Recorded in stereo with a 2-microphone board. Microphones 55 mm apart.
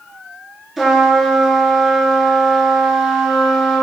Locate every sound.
0.8 s a trumpet: centre (ahead or behind), 0.9 m